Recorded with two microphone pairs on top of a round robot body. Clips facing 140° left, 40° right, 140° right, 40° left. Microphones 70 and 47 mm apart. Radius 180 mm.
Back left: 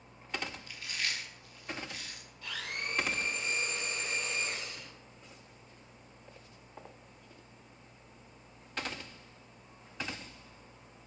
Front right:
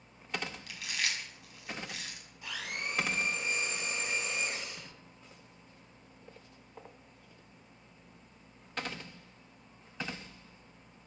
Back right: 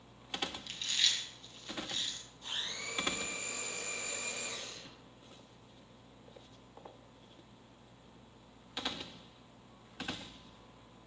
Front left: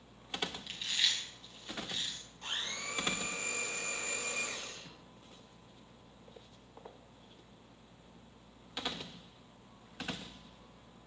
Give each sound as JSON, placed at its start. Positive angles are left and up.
{"t": 0.7, "sound": "chewing", "azimuth_deg": -40, "distance_m": 2.0}
{"t": 2.4, "sound": "a blender", "azimuth_deg": 35, "distance_m": 6.0}